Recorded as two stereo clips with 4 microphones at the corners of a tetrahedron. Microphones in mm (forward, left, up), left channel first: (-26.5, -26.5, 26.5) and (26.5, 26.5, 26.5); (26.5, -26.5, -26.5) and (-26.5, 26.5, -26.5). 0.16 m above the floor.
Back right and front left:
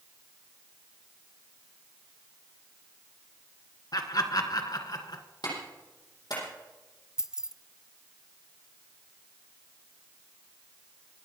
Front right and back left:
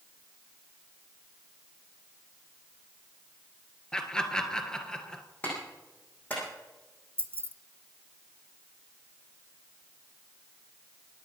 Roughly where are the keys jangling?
Behind left.